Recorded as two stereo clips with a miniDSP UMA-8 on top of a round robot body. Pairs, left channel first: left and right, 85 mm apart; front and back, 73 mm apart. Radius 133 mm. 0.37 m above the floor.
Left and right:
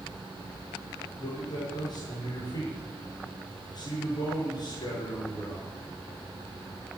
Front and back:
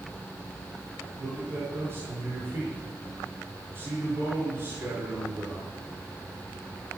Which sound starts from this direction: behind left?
A man speaking, at 1.2 s.